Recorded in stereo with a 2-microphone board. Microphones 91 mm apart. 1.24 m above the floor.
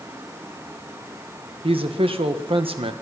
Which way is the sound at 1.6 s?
70° right (ahead or behind).